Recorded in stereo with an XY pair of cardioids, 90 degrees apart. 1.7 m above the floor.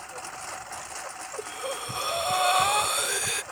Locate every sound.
0.0 s a lawn mower: 5° right; by 3.5 s 10° right
1.4 s breathing: 5° right